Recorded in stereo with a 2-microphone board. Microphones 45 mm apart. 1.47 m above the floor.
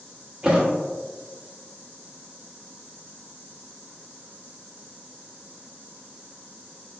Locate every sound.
0.4 s a thud: 25° right (ahead or behind), 1.0 m